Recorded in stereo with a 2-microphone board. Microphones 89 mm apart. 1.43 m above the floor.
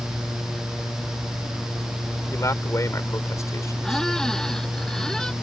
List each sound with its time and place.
2.3 s a man speaking: 35° left (ahead or behind)
3.8 s a squeak: 5° left (ahead or behind)